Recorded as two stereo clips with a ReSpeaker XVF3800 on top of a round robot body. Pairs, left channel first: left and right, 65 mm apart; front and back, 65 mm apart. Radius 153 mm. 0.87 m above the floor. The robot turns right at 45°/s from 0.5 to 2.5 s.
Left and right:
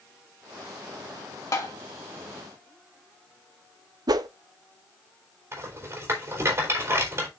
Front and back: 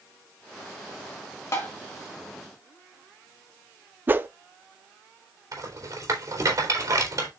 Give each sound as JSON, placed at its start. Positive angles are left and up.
{"t": 1.5, "sound": "tapping", "azimuth_deg": 50, "distance_m": 1.9}
{"t": 4.1, "sound": "a whoosh", "azimuth_deg": -115, "distance_m": 0.6}
{"t": 5.5, "sound": "a rattle", "azimuth_deg": -140, "distance_m": 3.5}